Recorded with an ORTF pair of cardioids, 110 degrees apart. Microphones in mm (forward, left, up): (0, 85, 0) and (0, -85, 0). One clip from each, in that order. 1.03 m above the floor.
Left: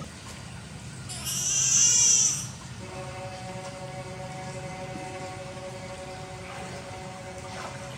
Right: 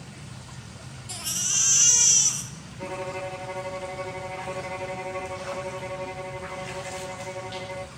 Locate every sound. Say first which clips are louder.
1.1 s a baby crying: right 2 dB; 20° right, 1.5 m
2.8 s a violin: right 7 dB; 50° right, 0.9 m